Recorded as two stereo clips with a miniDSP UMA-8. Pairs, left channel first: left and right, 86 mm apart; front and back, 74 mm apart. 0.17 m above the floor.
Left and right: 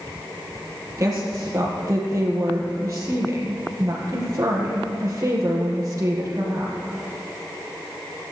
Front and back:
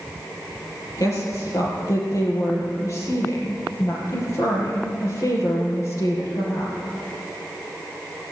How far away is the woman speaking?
About 3.5 m.